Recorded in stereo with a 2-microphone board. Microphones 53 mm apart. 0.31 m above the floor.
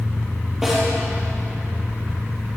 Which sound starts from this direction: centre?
A snare drum, at 0.6 s.